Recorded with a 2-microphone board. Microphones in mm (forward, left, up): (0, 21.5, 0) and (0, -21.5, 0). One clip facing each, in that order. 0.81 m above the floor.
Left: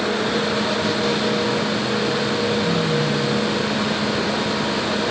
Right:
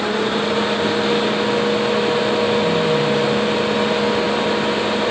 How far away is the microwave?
I don't hear a microwave.